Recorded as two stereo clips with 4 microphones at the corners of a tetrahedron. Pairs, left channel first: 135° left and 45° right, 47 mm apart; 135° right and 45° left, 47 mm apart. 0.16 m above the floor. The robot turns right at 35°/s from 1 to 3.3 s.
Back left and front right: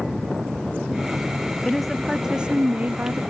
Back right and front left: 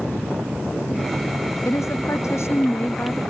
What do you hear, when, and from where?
1.6 s a woman speaking: 145° right; by 3.2 s 90° right